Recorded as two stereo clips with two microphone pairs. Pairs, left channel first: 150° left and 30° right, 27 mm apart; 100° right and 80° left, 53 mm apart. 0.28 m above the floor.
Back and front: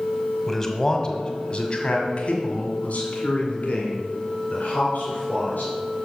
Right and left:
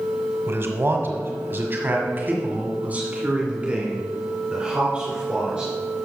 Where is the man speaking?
80° left, 1.4 m; by 5.7 s 155° left, 3.5 m.